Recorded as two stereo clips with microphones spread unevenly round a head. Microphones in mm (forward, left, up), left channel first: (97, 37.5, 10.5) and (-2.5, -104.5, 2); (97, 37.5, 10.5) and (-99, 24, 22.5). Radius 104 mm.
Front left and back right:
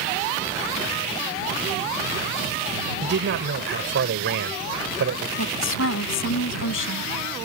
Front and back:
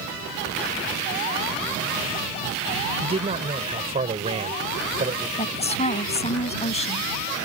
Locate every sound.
3.0 s a man speaking: 110° right
5.4 s a woman speaking: 65° left